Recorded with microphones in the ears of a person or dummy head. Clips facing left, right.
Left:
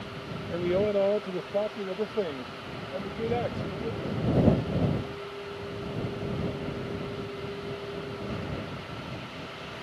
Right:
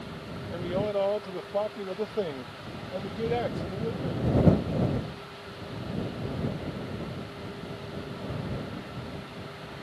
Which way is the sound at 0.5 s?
35° left (ahead or behind).